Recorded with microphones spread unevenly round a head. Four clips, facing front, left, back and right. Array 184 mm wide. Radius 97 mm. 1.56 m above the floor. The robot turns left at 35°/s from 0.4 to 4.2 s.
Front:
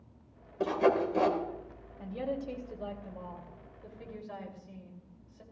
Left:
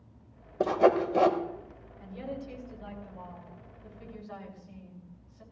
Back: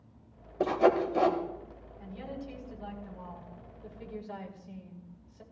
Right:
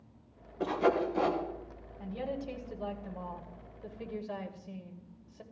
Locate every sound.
0.6 s sawing: 110° left, 1.7 m; by 1.4 s 85° left, 1.7 m
2.0 s a woman speaking: 20° right, 2.5 m; by 5.4 s 95° right, 2.5 m